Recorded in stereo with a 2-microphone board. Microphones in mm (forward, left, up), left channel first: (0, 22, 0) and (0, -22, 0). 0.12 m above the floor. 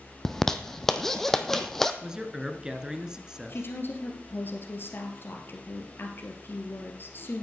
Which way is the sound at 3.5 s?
55° left (ahead or behind).